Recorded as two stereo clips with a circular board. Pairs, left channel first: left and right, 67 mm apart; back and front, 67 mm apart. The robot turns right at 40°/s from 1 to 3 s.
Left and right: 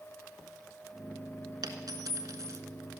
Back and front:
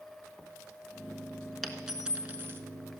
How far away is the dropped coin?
About 1.4 m.